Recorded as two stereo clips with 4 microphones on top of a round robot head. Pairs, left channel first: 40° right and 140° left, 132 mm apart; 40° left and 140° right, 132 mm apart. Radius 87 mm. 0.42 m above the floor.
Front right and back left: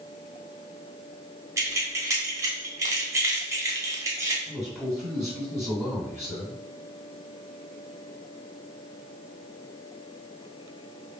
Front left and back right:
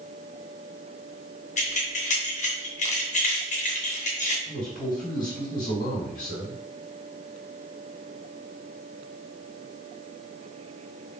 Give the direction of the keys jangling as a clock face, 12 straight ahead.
10 o'clock.